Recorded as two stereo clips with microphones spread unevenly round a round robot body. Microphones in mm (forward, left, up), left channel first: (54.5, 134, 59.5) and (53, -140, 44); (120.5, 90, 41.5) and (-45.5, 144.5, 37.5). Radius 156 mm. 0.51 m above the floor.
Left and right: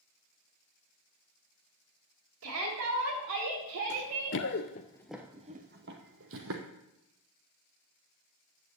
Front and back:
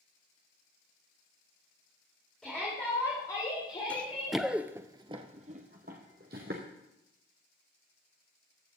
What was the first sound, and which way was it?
A shout, 105° right.